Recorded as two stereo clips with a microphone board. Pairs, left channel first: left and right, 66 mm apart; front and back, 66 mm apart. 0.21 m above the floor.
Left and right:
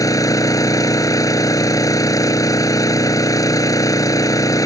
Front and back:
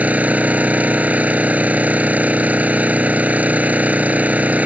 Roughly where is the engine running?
Behind left.